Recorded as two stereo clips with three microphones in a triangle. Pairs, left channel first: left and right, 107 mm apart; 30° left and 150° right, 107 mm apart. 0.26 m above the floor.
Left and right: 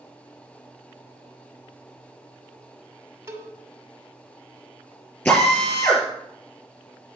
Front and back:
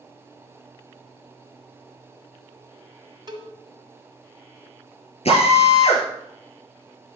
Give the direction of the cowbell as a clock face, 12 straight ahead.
5 o'clock.